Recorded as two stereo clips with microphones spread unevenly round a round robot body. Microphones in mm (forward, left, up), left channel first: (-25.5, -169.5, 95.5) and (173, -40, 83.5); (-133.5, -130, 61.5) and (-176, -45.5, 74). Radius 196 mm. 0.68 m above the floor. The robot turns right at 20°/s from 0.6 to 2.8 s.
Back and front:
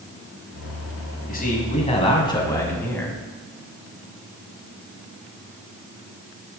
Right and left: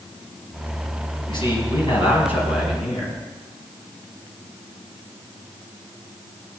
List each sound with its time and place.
1.3 s a man speaking: 95° right, 4.5 m; by 3.2 s 65° right, 4.5 m